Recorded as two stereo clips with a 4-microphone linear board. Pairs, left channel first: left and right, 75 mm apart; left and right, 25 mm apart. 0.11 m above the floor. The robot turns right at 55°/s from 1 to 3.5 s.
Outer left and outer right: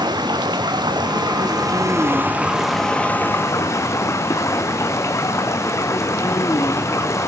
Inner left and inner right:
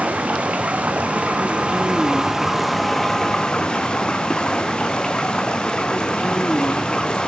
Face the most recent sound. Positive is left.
turn(degrees=40)